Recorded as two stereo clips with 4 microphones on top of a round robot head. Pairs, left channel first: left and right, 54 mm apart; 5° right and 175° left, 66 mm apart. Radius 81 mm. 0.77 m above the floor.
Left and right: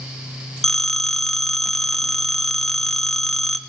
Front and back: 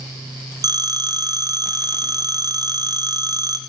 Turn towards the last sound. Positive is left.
turn(degrees=170)